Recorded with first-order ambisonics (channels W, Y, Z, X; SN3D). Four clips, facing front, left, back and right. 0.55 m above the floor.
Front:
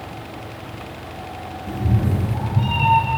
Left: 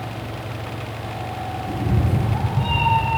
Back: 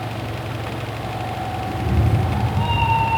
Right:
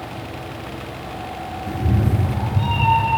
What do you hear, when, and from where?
1.7 s a cat meowing: 70° right, 4 m; by 3.1 s 50° right, 4 m